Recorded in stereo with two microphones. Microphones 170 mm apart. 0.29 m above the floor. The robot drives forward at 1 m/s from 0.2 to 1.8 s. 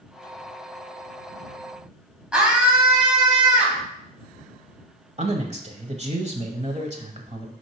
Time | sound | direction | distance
2.3 | a scream | 5° right (ahead or behind) | 2 m
5.2 | a man speaking | 40° right (ahead or behind) | 1.1 m